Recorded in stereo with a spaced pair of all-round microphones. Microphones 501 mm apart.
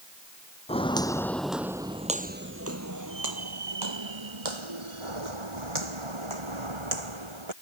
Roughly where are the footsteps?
Centre.